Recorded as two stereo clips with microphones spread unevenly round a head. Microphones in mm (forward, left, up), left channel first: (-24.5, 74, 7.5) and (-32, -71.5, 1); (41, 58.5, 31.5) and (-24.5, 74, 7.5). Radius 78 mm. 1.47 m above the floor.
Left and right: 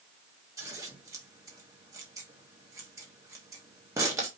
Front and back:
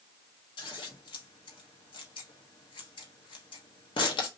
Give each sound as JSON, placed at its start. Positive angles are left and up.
{"t": 0.6, "sound": "scissors", "azimuth_deg": -20, "distance_m": 1.2}